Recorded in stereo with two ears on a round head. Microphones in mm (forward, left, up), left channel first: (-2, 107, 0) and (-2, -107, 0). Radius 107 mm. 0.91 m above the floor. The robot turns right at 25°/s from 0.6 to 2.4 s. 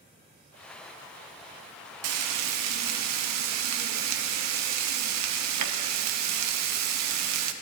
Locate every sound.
2.0 s frying: 65° right (ahead or behind), 0.6 m; by 7.5 s 75° right (ahead or behind), 0.6 m